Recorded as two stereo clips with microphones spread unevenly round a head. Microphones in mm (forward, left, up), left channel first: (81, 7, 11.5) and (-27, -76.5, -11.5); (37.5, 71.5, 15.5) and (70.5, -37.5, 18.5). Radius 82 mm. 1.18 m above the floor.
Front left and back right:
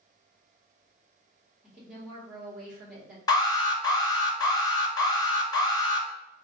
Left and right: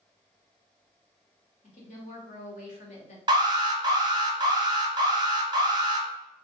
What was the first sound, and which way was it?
A woman speaking, 135° left.